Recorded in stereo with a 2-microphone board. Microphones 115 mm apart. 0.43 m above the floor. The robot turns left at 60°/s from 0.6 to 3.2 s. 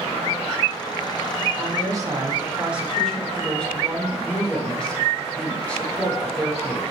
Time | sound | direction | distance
1.6 | a woman speaking | 100° right | 0.9 m